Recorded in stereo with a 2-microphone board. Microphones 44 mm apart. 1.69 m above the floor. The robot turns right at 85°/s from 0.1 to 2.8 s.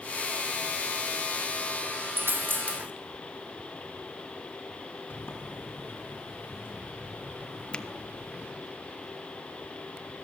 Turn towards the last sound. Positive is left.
turn(degrees=25)  # may be behind; listen again after turning